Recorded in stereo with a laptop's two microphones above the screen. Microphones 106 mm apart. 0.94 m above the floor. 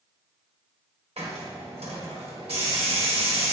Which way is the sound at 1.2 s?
75° right (ahead or behind).